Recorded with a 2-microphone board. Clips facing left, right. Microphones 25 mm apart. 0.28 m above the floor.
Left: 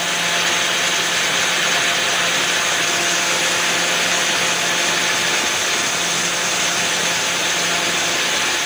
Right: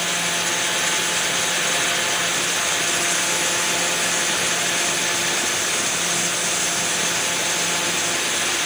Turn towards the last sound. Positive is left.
No sound to turn to.